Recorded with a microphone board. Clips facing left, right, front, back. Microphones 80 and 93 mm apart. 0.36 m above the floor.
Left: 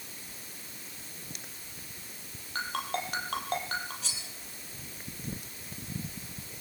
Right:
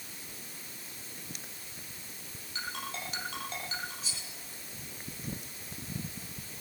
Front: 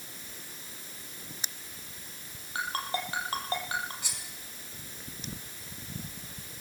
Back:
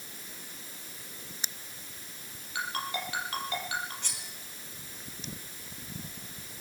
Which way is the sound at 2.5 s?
55° left.